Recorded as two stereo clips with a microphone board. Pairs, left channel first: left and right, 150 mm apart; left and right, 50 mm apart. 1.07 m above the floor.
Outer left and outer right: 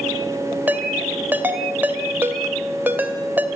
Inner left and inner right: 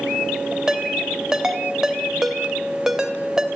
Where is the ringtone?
10° right (ahead or behind), 2.5 m.